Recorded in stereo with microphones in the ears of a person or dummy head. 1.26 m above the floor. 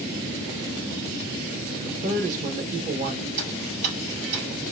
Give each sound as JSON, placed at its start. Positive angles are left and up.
{"t": 1.9, "sound": "a man speaking", "side_deg": -45, "distance_m": 1.0}
{"t": 3.4, "sound": "ticking", "side_deg": -45, "distance_m": 3.0}